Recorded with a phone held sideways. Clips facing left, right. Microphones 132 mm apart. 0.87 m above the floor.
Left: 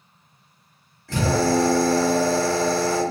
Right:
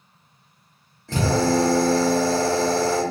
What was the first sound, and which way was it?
A drill, 25° right (ahead or behind).